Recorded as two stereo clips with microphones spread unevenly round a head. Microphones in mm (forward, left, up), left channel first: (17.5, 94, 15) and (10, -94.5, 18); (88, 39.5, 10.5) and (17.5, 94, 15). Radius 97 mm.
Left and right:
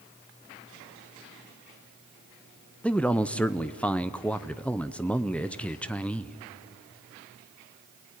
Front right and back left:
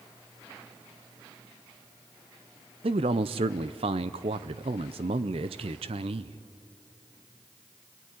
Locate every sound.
2.8 s a man speaking: 170° left, 0.6 m